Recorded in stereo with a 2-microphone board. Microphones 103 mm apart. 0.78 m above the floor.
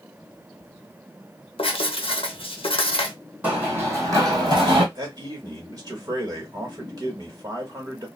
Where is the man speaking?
35° right (ahead or behind), 1.4 m.